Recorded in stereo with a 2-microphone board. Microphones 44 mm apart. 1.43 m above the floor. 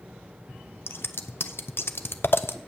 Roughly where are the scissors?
Left.